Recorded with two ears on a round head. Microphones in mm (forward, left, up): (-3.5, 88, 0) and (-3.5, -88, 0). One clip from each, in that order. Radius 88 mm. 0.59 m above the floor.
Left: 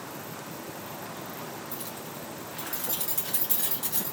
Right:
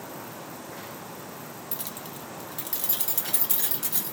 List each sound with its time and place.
1.7 s keys jangling: 30° right (ahead or behind), 0.6 m; by 4.1 s 10° right (ahead or behind), 1.5 m